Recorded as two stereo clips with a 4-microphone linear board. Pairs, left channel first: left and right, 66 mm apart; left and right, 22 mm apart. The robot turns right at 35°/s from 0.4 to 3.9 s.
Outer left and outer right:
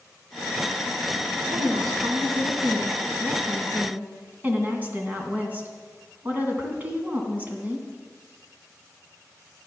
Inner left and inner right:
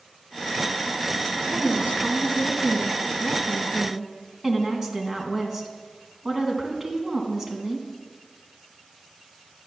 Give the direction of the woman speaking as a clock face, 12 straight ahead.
4 o'clock.